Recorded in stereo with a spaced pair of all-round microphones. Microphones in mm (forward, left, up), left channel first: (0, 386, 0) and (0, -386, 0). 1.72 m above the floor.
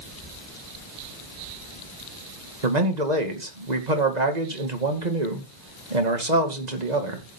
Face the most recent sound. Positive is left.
turn(degrees=-55)  # may be behind; listen again after turning